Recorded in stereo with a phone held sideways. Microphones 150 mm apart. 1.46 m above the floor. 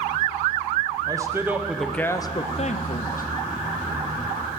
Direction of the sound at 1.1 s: 25° right (ahead or behind).